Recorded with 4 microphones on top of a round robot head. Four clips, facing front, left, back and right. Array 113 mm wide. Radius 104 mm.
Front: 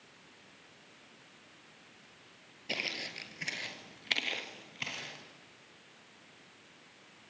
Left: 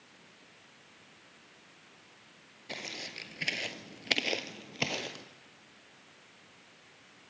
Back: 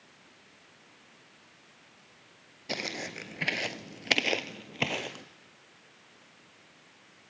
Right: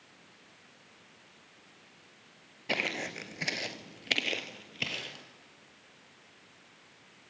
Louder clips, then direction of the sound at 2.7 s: Right 9 dB, back 4 dB; 110° right.